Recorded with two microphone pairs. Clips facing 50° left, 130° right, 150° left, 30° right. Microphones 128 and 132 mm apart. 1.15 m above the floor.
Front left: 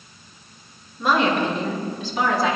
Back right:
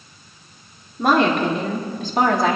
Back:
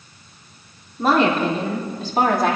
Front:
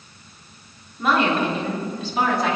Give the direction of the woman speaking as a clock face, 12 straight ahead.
5 o'clock.